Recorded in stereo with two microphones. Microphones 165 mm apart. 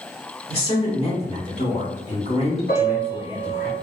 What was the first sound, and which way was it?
A woman speaking, 35° left (ahead or behind).